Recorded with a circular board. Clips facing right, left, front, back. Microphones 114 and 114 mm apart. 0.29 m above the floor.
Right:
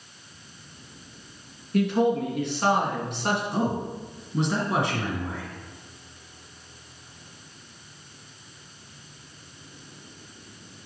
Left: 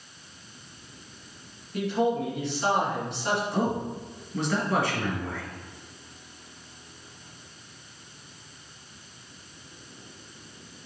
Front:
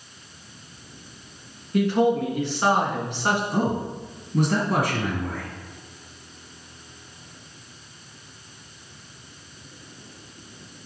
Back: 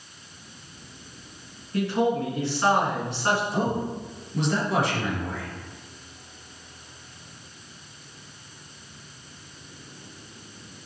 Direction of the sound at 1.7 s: 70° right.